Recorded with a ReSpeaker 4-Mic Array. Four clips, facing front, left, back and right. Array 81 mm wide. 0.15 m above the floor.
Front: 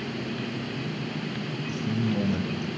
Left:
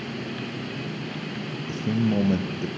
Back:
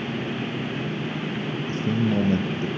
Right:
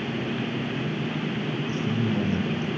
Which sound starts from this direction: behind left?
A man speaking, at 1.7 s.